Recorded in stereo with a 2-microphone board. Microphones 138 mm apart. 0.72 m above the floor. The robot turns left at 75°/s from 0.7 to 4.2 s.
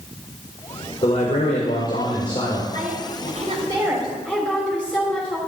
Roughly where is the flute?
I don't hear a flute.